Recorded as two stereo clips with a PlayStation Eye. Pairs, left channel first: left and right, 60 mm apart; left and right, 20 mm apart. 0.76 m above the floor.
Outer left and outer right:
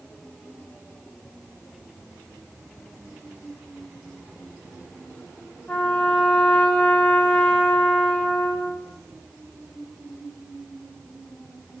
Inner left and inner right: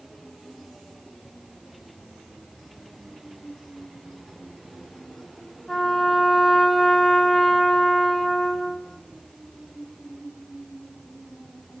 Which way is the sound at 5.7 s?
30° left (ahead or behind).